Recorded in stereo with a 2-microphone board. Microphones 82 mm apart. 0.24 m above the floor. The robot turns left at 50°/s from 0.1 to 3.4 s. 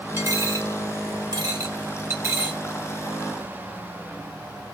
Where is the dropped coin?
30° right (ahead or behind), 0.8 m; by 2.6 s 15° right (ahead or behind), 0.8 m.